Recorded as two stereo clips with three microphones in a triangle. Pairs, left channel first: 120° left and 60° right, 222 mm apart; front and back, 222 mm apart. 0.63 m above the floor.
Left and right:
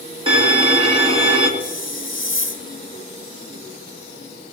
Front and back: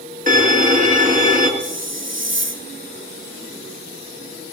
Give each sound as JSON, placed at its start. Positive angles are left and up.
{"t": 0.3, "sound": "a violin", "azimuth_deg": -125, "distance_m": 2.0}
{"t": 1.6, "sound": "a hiss", "azimuth_deg": 150, "distance_m": 1.4}